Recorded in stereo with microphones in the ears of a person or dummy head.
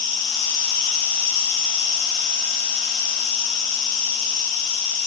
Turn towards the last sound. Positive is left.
turn(degrees=65)  # may be behind; listen again after turning